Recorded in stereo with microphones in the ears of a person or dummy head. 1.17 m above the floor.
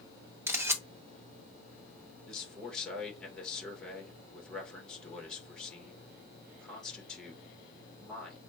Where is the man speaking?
5° left (ahead or behind), 1.6 m.